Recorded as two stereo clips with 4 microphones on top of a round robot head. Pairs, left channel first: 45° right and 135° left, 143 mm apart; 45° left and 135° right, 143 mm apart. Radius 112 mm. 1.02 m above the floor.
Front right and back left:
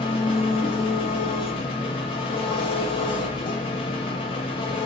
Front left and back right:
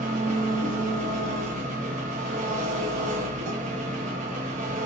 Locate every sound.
0.0 s an engine running: 95° right, 0.7 m